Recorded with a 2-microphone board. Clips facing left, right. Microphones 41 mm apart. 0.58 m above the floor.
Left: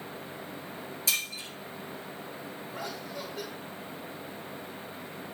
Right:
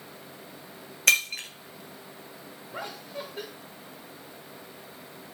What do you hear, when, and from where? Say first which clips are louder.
1.1 s breaking glass: right 10 dB; 60° right (ahead or behind), 1.5 m
2.7 s laughter: right 2 dB; 30° right (ahead or behind), 2 m